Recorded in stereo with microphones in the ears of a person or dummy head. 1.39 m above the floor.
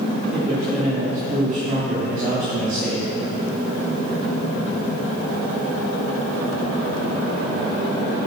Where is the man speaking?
45° right (ahead or behind), 3 m.